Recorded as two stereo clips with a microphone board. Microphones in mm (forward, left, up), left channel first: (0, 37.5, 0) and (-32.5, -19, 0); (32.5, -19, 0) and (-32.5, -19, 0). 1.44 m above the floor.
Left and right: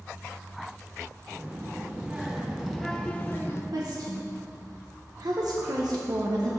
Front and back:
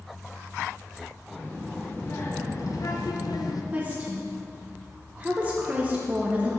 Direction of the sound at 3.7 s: 115° right.